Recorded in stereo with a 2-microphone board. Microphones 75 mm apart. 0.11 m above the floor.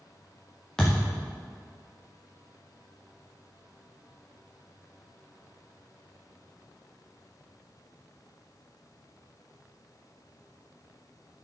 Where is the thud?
10° left (ahead or behind), 5 m.